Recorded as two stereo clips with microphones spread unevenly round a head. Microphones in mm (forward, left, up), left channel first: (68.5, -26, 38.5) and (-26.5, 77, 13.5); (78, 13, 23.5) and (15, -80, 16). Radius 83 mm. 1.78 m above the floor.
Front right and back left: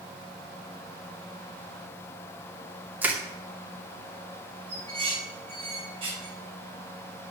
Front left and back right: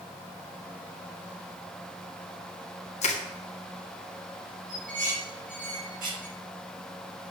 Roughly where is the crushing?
Ahead left.